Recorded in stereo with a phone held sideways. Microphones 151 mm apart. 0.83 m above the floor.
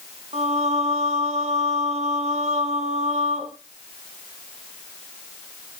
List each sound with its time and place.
0.3 s singing: 50° right (ahead or behind), 1.1 m